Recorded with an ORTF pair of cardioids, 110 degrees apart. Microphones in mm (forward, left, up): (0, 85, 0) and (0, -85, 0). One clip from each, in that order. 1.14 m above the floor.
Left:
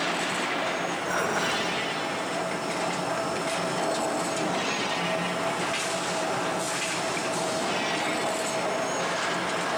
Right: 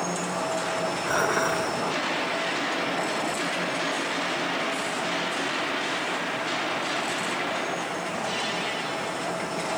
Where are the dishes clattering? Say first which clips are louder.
Right 3 dB; 20° right, 2.5 m.